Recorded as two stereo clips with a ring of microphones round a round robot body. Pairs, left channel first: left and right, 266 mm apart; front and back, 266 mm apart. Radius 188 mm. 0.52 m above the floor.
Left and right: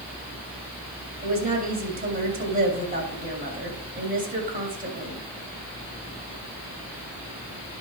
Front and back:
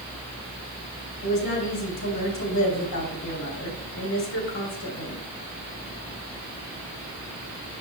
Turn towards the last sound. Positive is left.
turn(degrees=-35)